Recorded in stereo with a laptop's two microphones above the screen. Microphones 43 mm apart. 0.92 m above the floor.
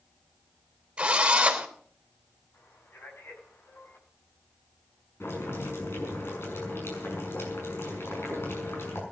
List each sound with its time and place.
1.0 s a drill: 25° right (ahead or behind), 3 m
2.5 s a man speaking: 65° left (ahead or behind), 6.5 m
5.2 s boiling: 65° left (ahead or behind), 6 m